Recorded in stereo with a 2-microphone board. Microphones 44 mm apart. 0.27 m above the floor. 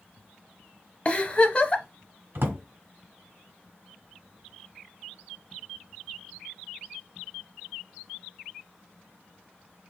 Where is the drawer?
60° right (ahead or behind), 1.3 m.